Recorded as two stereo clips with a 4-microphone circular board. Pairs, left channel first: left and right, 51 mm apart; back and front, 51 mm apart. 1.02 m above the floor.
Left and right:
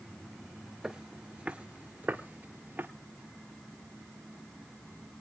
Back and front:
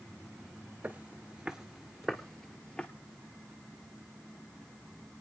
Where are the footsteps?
15° right, 1.1 m; by 2.9 s 120° right, 1.4 m.